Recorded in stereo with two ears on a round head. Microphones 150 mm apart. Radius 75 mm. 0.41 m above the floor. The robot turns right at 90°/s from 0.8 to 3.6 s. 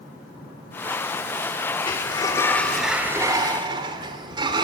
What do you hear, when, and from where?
1.9 s a sliding door: 30° left (ahead or behind), 1.6 m; by 4.7 s 30° right (ahead or behind), 1.6 m